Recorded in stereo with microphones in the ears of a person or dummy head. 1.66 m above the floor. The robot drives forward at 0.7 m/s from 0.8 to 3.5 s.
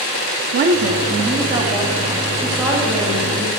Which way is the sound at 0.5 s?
40° right (ahead or behind).